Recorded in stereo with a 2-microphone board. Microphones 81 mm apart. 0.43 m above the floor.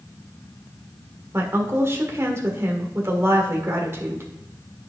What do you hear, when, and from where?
1.3 s a woman speaking: 30° right (ahead or behind), 1.4 m